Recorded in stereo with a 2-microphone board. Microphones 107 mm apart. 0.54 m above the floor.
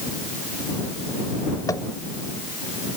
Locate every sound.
1.7 s tapping: 35° left (ahead or behind)